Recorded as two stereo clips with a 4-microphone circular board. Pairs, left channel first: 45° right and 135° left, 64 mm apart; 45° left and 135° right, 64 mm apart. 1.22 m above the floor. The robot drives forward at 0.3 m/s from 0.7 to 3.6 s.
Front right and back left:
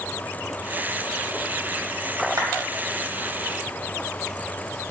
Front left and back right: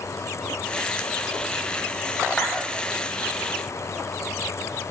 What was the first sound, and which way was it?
A clap, 125° left.